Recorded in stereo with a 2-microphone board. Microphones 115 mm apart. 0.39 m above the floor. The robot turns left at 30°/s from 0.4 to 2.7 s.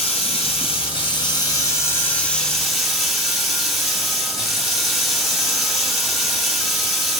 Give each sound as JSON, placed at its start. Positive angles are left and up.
{"t": 0.0, "sound": "running water", "azimuth_deg": 70, "distance_m": 2.0}